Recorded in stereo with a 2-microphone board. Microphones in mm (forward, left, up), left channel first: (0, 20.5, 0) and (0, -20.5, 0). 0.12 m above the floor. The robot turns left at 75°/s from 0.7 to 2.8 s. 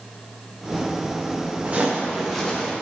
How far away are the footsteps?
About 4 m.